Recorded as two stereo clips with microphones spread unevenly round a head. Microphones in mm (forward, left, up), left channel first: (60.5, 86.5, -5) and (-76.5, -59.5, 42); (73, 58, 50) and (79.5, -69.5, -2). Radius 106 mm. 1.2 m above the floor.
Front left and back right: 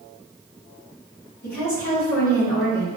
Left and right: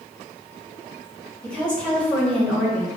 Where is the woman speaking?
5° left, 1.4 m.